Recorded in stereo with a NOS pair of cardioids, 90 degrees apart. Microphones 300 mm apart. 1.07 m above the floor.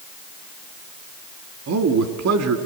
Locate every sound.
1.7 s a man speaking: 60° right, 2.0 m